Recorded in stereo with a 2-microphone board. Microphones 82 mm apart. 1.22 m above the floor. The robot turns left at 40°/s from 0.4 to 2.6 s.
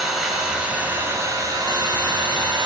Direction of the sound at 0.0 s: 5° right.